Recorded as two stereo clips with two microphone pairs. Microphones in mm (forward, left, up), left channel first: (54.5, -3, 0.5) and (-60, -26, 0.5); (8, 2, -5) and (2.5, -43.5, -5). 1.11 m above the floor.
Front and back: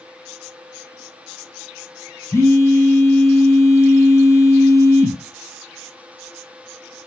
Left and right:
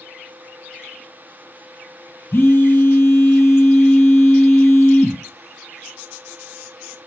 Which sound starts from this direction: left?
A phone buzzing, at 2.3 s.